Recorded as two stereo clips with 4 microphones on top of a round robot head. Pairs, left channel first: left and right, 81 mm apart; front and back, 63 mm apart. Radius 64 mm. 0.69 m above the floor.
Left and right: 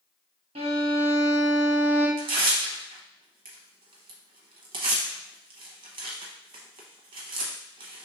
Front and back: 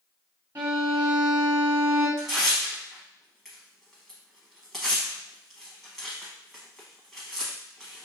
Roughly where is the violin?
Right.